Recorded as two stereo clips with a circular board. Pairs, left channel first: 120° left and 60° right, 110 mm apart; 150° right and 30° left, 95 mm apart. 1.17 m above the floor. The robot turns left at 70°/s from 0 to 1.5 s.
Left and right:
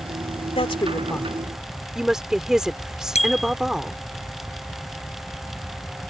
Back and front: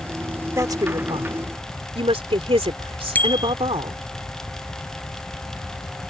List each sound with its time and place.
0.5 s a woman speaking: 90° left; by 4.2 s 25° left
3.1 s a bicycle bell: 140° left